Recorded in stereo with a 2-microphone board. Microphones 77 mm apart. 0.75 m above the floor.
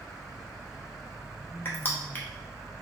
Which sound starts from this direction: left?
Crushing, at 1.6 s.